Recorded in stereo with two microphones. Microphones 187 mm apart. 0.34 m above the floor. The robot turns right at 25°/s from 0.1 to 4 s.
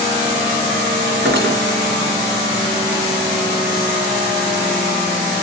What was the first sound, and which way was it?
Cutlery clinking, 80° right.